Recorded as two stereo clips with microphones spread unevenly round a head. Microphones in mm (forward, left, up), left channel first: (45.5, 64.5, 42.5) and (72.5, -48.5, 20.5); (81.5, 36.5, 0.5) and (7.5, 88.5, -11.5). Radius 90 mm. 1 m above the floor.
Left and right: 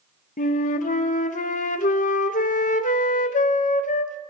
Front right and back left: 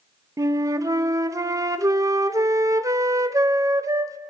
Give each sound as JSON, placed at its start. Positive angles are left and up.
{"t": 0.4, "sound": "a flute", "azimuth_deg": 95, "distance_m": 0.7}